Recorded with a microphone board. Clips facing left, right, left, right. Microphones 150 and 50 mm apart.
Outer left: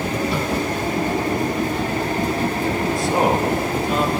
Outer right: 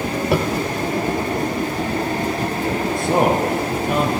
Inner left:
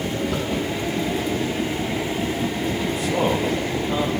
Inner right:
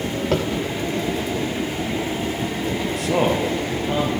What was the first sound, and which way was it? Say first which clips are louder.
Tapping: outer right 4 dB, inner right 4 dB; 65° right (ahead or behind).